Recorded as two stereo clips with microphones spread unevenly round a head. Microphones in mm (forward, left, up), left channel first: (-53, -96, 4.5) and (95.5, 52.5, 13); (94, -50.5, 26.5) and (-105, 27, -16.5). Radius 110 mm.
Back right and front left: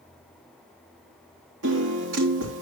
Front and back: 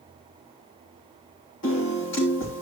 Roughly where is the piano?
Ahead.